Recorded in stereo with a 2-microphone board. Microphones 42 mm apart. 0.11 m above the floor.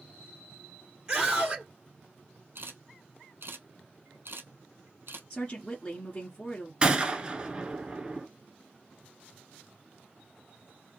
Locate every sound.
1.1 s a scream: 20° right (ahead or behind), 1.7 m
2.5 s a camera shutter: 65° right (ahead or behind), 1.0 m
5.3 s a woman speaking: 25° left (ahead or behind), 1.6 m
6.8 s a gunshot: 20° right (ahead or behind), 0.8 m